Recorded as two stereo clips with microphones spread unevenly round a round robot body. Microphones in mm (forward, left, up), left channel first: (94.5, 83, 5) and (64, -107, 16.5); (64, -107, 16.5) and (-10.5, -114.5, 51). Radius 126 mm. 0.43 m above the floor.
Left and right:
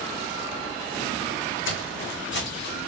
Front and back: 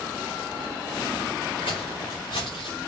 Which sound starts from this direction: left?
Footsteps, at 1.6 s.